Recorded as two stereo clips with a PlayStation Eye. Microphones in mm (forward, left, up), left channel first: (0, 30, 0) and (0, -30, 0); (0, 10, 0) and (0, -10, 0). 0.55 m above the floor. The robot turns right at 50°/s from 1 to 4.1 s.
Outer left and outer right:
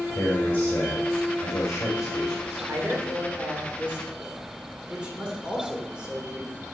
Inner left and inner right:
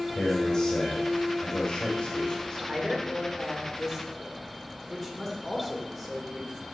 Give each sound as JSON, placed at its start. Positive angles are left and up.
{"t": 0.1, "sound": "a man speaking", "azimuth_deg": 70, "distance_m": 2.0}
{"t": 2.7, "sound": "a man speaking", "azimuth_deg": -90, "distance_m": 2.0}